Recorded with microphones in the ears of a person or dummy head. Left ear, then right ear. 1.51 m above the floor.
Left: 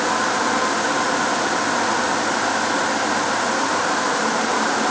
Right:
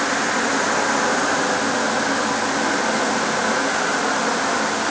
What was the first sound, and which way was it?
Only background noise.